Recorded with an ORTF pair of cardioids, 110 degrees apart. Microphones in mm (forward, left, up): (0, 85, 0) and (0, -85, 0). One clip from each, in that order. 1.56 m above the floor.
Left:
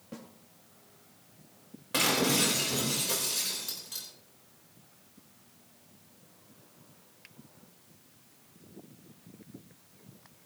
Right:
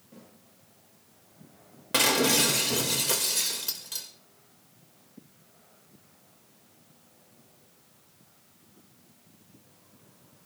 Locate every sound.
0.1 s a snare drum: 65° left, 3 m
1.9 s breaking glass: 40° right, 3 m